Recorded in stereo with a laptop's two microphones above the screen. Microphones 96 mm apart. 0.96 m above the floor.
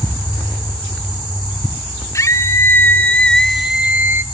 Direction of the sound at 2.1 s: 35° left (ahead or behind).